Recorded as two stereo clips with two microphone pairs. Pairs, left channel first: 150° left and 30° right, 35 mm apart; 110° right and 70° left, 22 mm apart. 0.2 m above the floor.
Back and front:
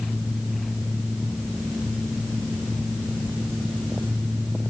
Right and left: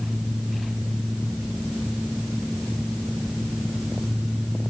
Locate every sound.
Only background noise.